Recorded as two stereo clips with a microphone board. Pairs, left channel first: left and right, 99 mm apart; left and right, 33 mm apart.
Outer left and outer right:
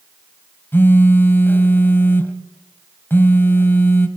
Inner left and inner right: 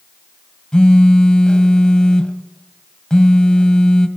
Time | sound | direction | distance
0.7 | a phone buzzing | 25° left (ahead or behind) | 1.7 m